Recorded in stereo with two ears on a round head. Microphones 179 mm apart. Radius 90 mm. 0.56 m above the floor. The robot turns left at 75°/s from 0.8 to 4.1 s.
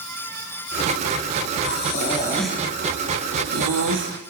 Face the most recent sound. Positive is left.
turn(degrees=-55)  # may be behind; listen again after turning